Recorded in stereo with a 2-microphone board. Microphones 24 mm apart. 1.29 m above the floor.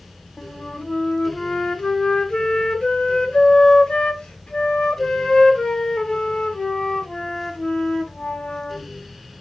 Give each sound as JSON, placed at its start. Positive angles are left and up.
{"t": 0.4, "sound": "a flute", "side_deg": 30, "distance_m": 1.2}